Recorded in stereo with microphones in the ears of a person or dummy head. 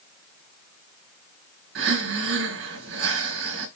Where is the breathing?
70° right (ahead or behind), 4 m.